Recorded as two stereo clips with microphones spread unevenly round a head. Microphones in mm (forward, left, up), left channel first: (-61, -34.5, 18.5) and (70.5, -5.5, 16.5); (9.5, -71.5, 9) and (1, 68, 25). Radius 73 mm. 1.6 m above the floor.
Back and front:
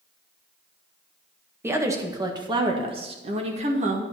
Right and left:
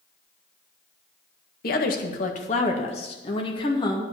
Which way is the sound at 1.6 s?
60° right.